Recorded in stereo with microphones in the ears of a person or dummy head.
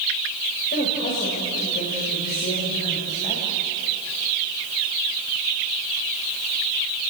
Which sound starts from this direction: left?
A woman speaking, at 0.7 s.